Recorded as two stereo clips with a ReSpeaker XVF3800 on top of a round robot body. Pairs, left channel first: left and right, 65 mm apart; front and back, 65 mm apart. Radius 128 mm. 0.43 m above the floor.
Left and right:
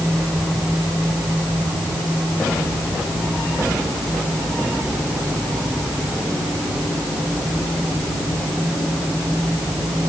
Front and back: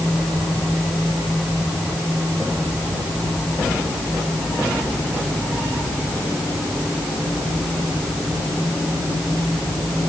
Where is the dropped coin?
I don't hear a dropped coin.